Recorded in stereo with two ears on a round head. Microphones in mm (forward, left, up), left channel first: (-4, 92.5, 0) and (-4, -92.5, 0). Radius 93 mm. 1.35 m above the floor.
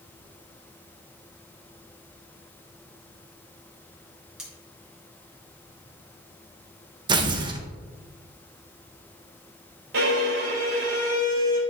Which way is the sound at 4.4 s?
5° right (ahead or behind).